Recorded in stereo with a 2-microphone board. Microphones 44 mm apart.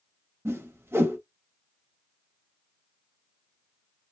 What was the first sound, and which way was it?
A whoosh, 75° right (ahead or behind).